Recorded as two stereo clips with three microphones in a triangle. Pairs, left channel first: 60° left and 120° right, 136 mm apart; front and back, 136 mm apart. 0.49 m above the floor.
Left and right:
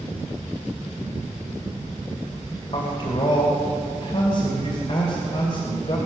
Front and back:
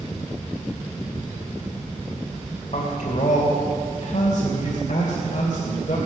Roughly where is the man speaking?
Ahead left.